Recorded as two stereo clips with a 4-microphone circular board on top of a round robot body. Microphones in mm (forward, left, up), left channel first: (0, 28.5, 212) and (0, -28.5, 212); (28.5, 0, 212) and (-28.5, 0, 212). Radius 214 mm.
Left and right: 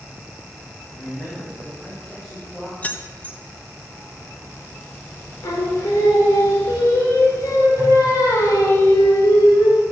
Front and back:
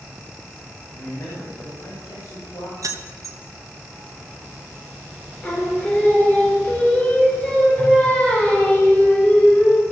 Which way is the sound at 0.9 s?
45° left.